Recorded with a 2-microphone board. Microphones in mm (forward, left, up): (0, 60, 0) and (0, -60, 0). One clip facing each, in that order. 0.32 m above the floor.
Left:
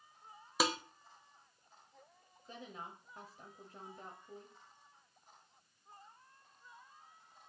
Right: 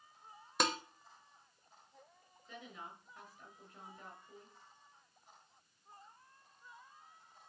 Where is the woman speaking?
35° left (ahead or behind), 1.4 m.